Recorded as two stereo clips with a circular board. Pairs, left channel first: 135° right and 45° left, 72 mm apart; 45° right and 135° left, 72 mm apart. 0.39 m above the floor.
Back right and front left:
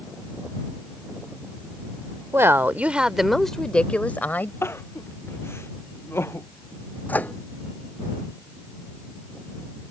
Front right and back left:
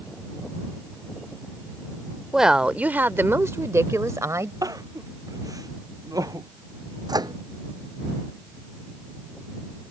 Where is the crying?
170° left.